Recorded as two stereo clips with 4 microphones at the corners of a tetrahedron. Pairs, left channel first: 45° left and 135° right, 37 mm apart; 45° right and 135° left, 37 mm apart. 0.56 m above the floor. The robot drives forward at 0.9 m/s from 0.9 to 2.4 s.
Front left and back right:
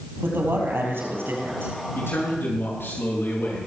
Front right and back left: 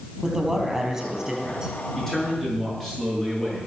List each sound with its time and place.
0.2 s a man speaking: 145° right, 4.5 m; by 1.7 s 150° right, 5 m
1.9 s a man speaking: 35° left, 7 m